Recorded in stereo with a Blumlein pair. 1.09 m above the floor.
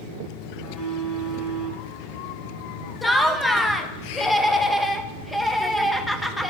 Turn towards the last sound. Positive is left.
turn(degrees=5)